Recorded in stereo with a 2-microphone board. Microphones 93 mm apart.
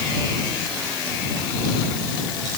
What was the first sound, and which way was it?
Only background noise.